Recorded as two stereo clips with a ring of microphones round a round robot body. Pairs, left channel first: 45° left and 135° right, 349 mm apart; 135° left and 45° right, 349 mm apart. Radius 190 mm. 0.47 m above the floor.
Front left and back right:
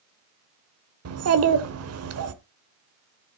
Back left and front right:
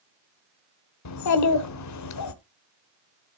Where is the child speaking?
175° left, 1.0 m.